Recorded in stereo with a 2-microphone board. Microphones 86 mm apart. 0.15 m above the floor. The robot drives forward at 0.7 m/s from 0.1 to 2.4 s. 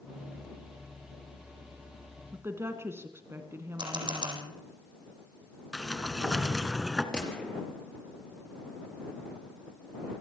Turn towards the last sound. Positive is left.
turn(degrees=10)  # may be behind; listen again after turning